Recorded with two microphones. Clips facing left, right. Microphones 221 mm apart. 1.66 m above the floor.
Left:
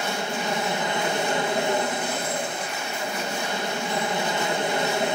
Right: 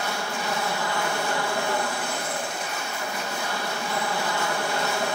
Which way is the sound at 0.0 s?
20° left (ahead or behind).